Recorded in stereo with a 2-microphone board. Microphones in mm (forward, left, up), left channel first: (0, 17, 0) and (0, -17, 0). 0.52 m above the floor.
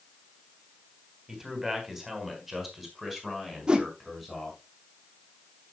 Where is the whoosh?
25° right (ahead or behind), 0.8 m.